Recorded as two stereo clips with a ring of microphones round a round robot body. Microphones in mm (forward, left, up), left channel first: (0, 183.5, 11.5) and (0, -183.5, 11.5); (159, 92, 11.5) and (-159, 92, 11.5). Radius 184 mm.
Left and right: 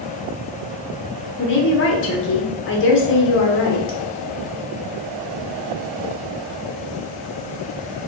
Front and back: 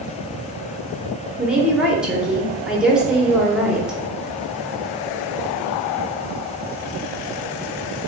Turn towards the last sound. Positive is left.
turn(degrees=95)